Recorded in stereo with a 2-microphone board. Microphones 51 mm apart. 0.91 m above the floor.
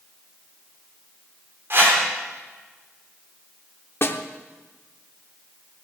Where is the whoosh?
50° right (ahead or behind), 3.5 m.